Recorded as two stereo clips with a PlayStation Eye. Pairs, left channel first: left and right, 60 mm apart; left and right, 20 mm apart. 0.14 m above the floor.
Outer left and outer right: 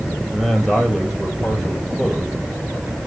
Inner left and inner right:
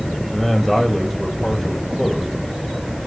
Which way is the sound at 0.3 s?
5° left (ahead or behind).